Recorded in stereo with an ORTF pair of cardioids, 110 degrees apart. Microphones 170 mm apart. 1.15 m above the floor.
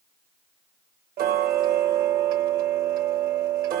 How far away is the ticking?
About 0.9 m.